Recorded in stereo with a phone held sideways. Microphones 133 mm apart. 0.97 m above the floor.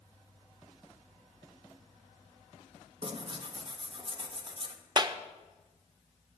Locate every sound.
3.0 s tearing paper: 40° right (ahead or behind), 1.1 m
5.0 s a clap: 30° right (ahead or behind), 0.6 m